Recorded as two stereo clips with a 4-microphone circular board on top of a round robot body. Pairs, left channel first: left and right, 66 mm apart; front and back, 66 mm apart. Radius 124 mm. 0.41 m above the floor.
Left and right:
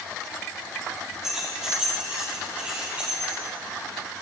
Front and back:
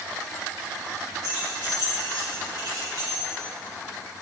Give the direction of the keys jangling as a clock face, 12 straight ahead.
6 o'clock.